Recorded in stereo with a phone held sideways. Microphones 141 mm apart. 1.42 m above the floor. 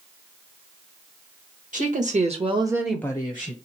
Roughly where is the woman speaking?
Right.